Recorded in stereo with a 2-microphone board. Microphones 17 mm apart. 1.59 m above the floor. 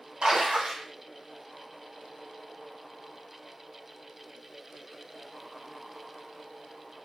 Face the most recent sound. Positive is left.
turn(degrees=-90)